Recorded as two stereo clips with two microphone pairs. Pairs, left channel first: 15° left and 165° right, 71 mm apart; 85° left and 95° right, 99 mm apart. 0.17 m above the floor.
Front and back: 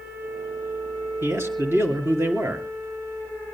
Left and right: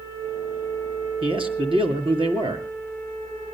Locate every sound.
1.2 s a man speaking: 115° right, 3 m